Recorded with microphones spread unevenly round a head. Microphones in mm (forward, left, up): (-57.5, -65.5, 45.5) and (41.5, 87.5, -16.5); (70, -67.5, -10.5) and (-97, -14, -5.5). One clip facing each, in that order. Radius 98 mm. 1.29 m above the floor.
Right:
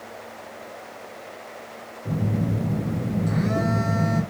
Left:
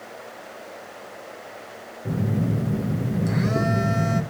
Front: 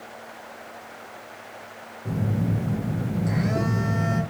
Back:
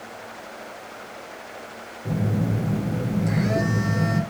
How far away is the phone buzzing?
About 0.9 m.